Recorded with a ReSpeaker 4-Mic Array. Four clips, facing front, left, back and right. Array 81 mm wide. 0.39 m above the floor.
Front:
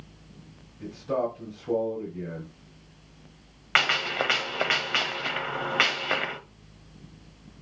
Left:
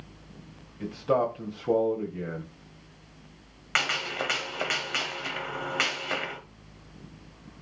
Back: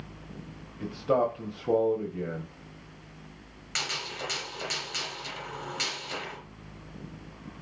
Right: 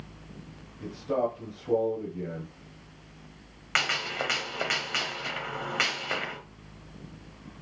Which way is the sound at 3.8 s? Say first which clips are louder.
Even, front 11 dB; straight ahead.